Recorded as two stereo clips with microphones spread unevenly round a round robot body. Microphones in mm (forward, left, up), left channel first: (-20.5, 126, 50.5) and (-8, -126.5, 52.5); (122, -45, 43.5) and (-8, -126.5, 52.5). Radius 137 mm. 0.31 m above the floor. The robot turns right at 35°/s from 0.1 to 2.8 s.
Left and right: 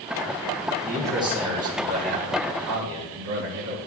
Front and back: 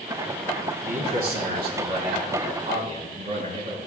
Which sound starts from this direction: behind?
A man speaking, at 0.8 s.